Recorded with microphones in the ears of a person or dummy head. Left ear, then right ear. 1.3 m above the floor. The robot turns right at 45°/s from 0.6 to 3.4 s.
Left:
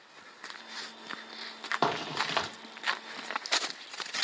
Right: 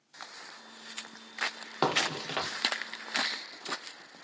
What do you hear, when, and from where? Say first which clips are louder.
1.8 s a crack: right 3 dB; 5° right (ahead or behind), 0.6 m; by 2.5 s 20° left (ahead or behind), 0.6 m